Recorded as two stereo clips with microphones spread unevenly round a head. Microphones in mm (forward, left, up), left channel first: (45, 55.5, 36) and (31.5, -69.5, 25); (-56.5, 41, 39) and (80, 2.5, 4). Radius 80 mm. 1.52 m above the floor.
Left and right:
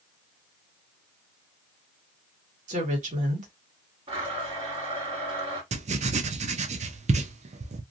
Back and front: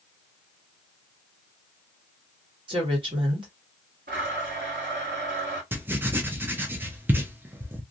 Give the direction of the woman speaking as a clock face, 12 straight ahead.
3 o'clock.